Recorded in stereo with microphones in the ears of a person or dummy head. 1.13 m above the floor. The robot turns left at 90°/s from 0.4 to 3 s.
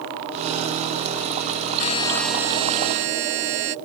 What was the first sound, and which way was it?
A buzzer, 45° left.